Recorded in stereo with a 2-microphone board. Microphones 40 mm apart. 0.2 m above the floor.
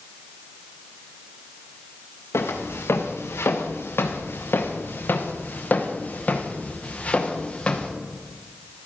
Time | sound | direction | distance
2.3 | footsteps | 85° left | 2.5 m